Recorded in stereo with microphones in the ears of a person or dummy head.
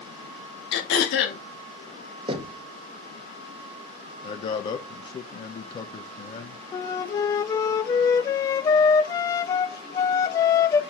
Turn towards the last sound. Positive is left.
turn(degrees=20)  # may be behind; listen again after turning